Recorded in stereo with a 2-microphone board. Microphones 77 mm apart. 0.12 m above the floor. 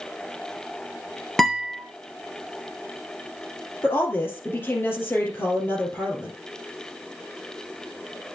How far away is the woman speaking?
About 2.5 m.